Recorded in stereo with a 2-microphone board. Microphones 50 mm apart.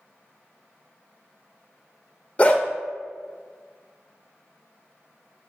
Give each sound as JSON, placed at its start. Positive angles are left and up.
{"t": 2.4, "sound": "a dog barking", "side_deg": 30, "distance_m": 0.5}